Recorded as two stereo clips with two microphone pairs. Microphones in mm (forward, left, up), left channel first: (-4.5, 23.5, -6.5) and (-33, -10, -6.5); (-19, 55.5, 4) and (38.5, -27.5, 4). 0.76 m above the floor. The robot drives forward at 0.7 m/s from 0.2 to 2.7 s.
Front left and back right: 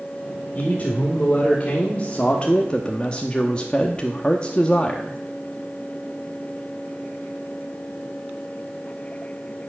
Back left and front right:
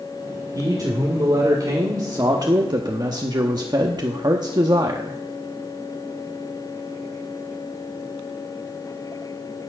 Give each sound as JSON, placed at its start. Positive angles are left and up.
{"t": 0.6, "sound": "a man speaking", "azimuth_deg": -5, "distance_m": 2.5}